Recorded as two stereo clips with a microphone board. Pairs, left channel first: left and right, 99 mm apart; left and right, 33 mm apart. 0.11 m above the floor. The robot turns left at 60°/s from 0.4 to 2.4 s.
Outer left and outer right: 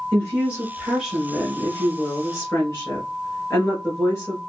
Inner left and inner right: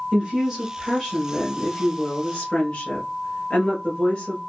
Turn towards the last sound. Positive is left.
turn(degrees=25)  # may be behind; listen again after turning